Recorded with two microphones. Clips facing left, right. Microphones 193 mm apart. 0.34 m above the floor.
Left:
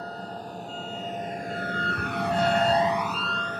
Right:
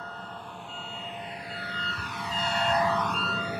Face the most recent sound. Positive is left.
turn(degrees=-10)  # may be behind; listen again after turning